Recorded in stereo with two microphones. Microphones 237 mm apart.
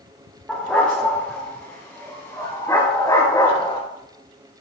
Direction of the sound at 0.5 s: Centre (ahead or behind).